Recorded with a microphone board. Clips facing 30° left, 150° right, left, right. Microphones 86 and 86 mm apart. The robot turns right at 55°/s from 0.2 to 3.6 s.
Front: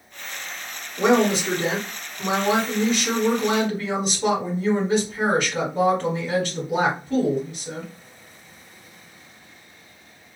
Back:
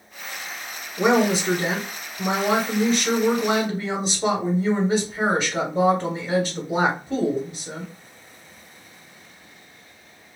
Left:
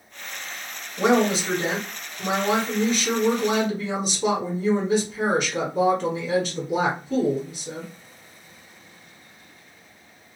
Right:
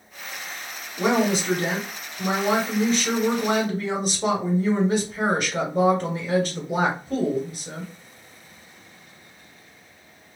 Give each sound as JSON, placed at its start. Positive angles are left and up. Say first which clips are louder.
{"t": 1.0, "sound": "a woman speaking", "louder": "even, left 2 dB", "azimuth_deg": 140, "distance_m": 1.4}